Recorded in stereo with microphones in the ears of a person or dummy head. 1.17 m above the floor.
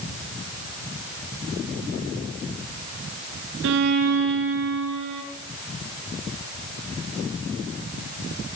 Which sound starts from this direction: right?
A violin, at 3.6 s.